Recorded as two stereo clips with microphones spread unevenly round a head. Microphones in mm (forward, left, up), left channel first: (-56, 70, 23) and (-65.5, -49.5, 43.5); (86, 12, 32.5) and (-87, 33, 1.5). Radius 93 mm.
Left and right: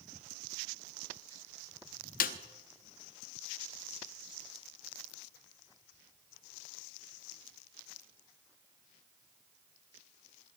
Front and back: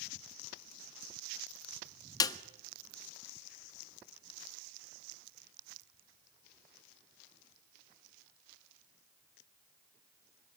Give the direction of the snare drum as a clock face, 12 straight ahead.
10 o'clock.